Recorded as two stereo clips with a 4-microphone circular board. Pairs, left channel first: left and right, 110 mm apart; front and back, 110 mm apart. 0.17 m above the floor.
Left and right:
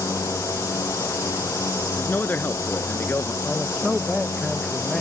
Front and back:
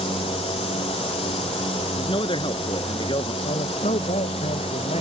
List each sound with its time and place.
0.0 s a drone: 30° left
2.0 s a man speaking: 20° left
3.4 s a man speaking: straight ahead